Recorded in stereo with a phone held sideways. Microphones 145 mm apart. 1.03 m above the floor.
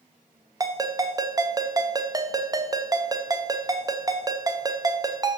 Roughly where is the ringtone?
Right.